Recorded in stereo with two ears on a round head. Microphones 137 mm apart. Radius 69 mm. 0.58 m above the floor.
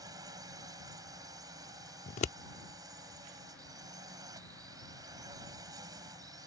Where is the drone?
20° right (ahead or behind).